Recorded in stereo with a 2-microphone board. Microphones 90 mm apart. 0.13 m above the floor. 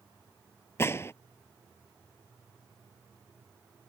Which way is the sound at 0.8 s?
30° left (ahead or behind).